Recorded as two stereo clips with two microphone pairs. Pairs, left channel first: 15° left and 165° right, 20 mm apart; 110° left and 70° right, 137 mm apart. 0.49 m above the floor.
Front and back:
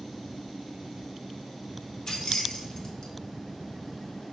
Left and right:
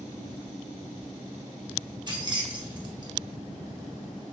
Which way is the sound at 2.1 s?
25° right.